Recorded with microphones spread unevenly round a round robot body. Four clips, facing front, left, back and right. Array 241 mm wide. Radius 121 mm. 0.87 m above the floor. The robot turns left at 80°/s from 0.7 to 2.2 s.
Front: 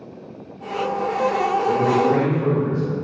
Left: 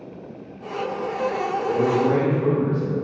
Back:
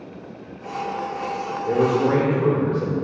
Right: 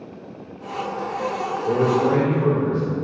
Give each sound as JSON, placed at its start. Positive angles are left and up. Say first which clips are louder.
{"t": 1.7, "sound": "a man speaking", "louder": "right 2 dB, back 2 dB", "azimuth_deg": -125, "distance_m": 2.0}